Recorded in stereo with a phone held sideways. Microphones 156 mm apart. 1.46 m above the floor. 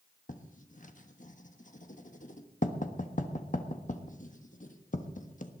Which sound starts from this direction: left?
Writing, at 0.3 s.